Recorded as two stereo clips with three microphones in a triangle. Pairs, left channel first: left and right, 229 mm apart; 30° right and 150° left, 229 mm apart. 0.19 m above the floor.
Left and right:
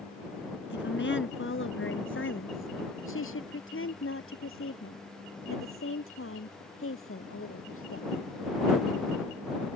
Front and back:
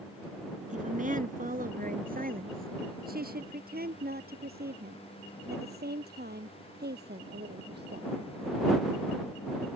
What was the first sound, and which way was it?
A woman speaking, 100° left.